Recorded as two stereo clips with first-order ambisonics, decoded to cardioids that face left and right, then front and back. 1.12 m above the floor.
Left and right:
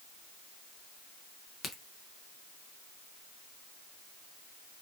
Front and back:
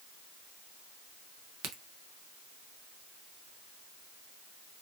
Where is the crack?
160° left, 0.7 m.